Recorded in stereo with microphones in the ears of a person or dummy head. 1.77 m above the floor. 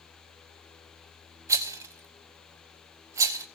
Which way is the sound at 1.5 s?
15° right (ahead or behind).